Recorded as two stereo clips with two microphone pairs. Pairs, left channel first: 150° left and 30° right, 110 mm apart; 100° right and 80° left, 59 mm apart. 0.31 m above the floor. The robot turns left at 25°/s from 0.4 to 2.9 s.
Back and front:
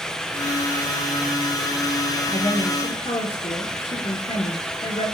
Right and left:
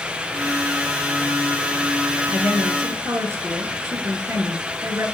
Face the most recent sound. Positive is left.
turn(degrees=125)